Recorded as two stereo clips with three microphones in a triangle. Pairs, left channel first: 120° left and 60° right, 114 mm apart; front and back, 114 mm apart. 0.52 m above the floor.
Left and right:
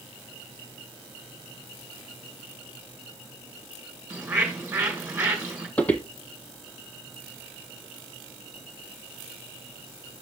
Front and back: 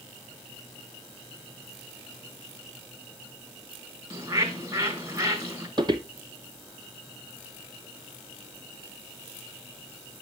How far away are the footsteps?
About 0.7 m.